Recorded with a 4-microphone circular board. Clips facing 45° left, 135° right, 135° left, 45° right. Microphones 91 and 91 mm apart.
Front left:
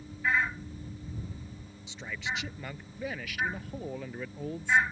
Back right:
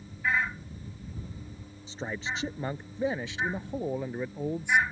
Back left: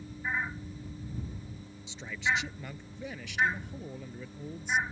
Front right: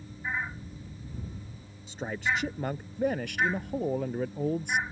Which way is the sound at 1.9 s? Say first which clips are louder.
Back right 2 dB, front right 1 dB; 85° right.